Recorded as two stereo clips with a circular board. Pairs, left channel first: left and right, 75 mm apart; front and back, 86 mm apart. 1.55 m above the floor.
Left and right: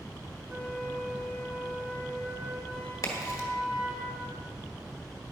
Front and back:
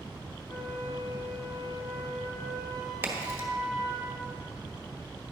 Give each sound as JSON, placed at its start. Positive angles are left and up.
{"t": 0.5, "sound": "a flute", "azimuth_deg": -20, "distance_m": 3.0}
{"t": 3.0, "sound": "a crack", "azimuth_deg": 120, "distance_m": 1.5}